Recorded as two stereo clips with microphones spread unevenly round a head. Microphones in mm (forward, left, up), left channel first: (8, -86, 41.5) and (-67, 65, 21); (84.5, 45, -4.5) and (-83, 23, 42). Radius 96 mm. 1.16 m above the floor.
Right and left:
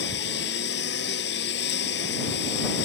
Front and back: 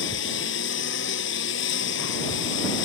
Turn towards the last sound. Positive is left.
turn(degrees=-25)